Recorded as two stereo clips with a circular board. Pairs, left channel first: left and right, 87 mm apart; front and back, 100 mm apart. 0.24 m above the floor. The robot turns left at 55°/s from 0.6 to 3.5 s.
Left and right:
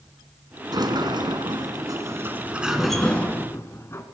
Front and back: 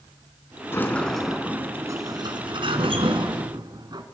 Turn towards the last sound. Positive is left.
turn(degrees=145)